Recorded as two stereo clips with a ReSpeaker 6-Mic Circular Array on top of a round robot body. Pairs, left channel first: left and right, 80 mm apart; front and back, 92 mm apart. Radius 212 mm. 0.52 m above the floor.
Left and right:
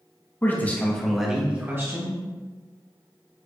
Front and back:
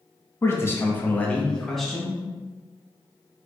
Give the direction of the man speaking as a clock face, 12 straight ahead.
10 o'clock.